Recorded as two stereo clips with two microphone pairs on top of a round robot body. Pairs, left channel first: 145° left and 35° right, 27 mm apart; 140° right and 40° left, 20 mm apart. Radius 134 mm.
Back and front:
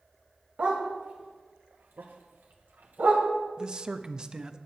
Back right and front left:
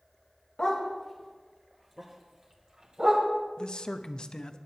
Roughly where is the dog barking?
Right.